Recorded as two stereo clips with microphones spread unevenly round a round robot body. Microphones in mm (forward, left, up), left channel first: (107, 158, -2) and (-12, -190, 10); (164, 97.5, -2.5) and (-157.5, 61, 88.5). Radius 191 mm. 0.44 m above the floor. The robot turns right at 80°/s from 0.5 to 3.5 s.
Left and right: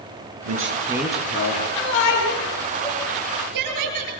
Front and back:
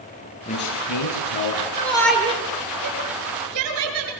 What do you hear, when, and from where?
0.5 s a man speaking: 60° right, 8.5 m; by 1.7 s 30° left, 8.5 m
1.8 s a shout: 70° left, 9 m; by 4.1 s 155° right, 9 m